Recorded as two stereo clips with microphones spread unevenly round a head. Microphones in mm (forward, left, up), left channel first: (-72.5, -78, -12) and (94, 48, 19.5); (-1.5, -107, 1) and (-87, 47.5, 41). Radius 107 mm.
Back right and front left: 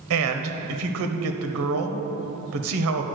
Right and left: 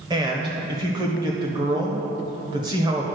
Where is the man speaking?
50° left, 0.9 m.